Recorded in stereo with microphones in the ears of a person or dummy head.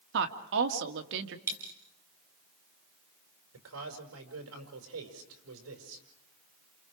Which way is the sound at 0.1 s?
70° right (ahead or behind).